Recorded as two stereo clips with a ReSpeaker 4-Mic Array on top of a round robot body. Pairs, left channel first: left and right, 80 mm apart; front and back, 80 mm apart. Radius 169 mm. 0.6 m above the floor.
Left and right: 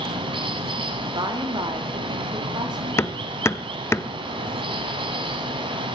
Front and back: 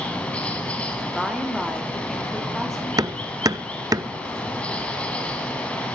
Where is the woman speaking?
90° right, 2 m.